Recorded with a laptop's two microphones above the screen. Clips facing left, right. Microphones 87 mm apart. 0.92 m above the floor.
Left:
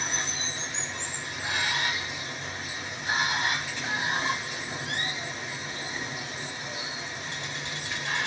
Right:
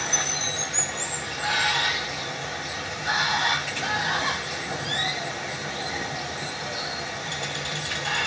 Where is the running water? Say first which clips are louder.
Right 4 dB; 75° right (ahead or behind), 1.0 m.